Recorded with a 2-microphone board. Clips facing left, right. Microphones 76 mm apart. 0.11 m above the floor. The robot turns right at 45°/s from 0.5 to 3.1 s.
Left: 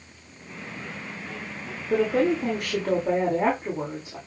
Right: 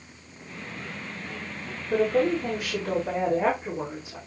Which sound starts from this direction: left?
A woman speaking, at 1.9 s.